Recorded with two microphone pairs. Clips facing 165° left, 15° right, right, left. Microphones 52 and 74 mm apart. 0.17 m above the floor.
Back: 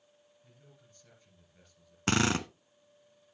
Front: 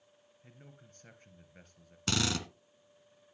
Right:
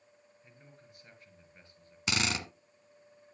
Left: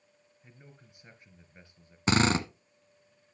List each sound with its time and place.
0.4 s a man speaking: 20° left, 2.5 m
2.1 s a drill: 125° left, 0.9 m